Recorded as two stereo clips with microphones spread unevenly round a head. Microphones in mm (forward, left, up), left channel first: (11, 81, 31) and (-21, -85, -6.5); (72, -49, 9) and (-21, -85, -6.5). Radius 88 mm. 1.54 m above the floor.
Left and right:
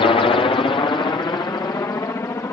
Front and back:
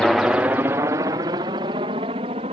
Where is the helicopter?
115° left; by 2.5 s 155° left.